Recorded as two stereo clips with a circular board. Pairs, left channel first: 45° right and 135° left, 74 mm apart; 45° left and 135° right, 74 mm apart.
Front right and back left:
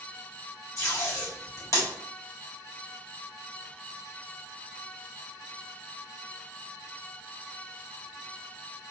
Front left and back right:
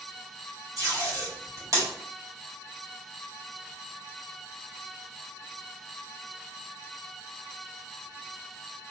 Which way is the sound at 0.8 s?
90° right.